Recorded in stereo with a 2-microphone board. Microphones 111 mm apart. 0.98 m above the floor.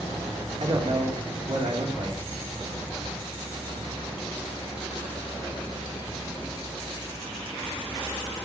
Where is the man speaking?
65° right (ahead or behind), 3 m.